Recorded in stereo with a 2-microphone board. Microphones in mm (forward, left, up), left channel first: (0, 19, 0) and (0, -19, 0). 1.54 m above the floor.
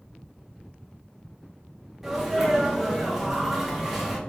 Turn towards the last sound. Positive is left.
turn(degrees=-5)  # may be behind; listen again after turning